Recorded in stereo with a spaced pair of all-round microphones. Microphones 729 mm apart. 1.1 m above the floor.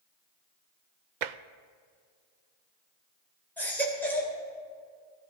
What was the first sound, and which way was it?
Tapping, 80° right.